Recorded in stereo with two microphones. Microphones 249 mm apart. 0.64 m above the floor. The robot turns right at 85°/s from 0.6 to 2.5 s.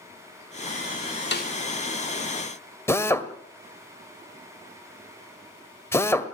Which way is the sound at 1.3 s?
45° left (ahead or behind).